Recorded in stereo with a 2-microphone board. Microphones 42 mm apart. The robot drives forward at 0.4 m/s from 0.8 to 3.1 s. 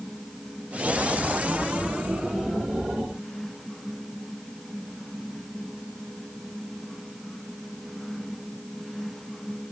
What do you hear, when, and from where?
Only background noise.